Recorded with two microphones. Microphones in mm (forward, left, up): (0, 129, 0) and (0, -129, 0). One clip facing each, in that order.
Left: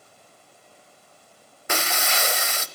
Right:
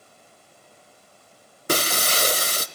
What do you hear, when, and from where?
1.7 s breaking glass: 40° right (ahead or behind), 0.9 m